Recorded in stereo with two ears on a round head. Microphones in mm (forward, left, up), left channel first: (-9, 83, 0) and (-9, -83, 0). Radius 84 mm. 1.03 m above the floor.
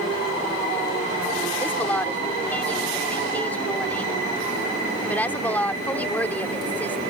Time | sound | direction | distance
1.6 | a woman speaking | 10° left (ahead or behind) | ?